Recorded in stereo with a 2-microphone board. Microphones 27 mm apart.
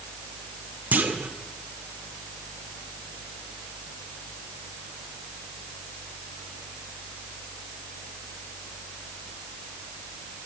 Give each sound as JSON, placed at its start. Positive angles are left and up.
{"t": 0.9, "sound": "a clunk", "side_deg": -75, "distance_m": 1.9}